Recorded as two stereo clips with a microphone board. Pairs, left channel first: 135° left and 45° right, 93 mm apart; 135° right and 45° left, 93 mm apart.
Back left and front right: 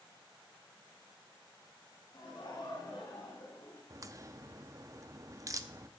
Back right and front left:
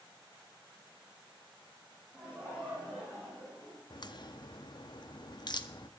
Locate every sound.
2.1 s laughter: 120° left, 7 m; by 3.8 s 125° left, 6 m
3.9 s a crack: 100° right, 0.8 m